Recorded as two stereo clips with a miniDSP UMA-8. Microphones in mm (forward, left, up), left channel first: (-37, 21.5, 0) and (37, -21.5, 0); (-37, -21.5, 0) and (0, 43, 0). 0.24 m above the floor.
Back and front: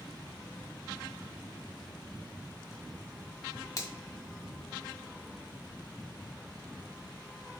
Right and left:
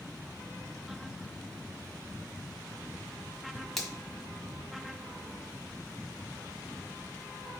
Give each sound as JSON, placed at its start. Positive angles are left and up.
{"t": 3.8, "sound": "a finger snap", "azimuth_deg": 155, "distance_m": 1.8}